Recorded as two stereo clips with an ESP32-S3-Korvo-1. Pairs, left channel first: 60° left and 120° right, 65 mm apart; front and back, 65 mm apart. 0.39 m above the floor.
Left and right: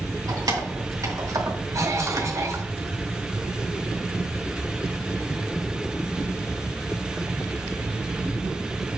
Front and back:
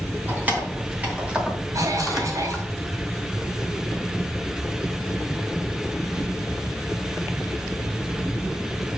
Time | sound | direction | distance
0.3 | keys jangling | 120° right | 3 m
1.7 | a cough | 150° right | 2.0 m